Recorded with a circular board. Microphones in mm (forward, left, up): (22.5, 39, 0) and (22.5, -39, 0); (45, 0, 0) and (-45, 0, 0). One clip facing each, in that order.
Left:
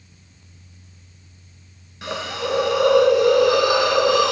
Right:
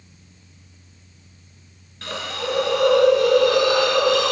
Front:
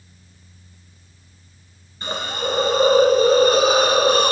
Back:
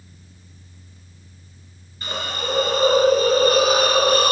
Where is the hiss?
30° left, 0.6 m.